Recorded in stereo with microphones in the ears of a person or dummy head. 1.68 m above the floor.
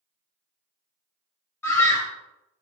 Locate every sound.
1.6 s a scream: 10° left (ahead or behind), 1.0 m